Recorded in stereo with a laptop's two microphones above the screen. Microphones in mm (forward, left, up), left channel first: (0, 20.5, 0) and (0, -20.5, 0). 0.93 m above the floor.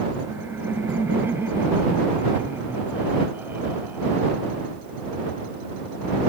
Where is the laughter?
80° right; by 4.3 s 45° right (ahead or behind).